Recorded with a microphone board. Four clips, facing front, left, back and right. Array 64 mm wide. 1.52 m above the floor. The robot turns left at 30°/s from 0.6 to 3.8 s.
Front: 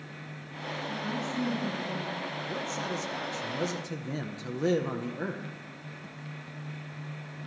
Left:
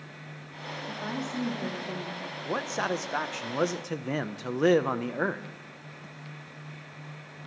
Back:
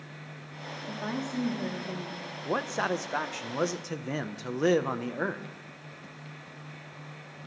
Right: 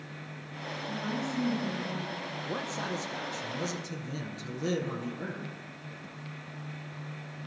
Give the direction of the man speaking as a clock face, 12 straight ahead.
7 o'clock.